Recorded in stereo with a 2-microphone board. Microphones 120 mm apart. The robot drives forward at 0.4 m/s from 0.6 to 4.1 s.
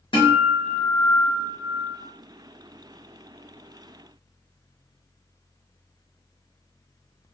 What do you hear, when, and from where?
0.1 s a guitar: 45° left (ahead or behind), 1.5 m; by 2.0 s 60° left (ahead or behind), 1.2 m